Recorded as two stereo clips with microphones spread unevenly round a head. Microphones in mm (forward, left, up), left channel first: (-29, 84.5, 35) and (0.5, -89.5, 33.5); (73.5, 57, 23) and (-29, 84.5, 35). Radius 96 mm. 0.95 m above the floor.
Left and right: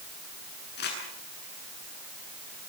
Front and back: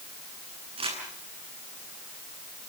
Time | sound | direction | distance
0.8 | crumpling | 130° left | 9.5 m